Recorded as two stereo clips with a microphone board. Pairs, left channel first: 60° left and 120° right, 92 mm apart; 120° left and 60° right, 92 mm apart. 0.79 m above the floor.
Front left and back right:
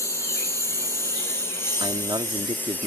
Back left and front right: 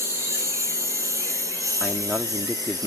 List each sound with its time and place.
0.0 s a lawn mower: straight ahead; by 2.9 s 10° right
1.8 s a man speaking: 145° right